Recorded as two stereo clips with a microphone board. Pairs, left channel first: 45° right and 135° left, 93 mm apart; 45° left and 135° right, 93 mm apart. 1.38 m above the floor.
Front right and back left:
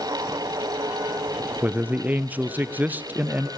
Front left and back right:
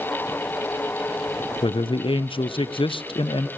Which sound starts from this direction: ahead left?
A man speaking, at 1.6 s.